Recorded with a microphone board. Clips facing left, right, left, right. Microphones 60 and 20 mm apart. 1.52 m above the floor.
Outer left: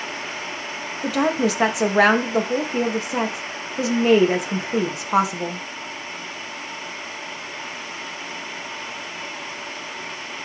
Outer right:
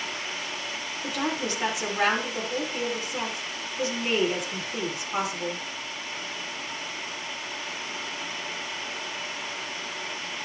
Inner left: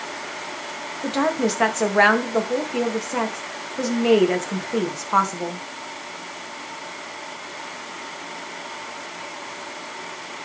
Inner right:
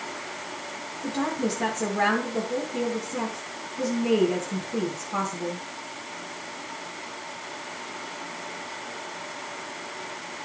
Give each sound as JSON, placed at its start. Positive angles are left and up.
{"t": 1.0, "sound": "a woman speaking", "side_deg": 90, "distance_m": 2.0}